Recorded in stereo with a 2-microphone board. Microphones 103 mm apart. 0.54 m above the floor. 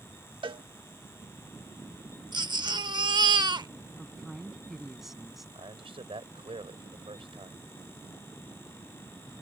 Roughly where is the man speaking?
Right.